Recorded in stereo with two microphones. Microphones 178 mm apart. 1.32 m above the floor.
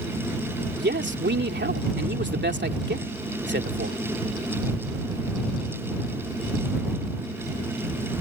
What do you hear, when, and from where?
0.8 s a man speaking: 85° right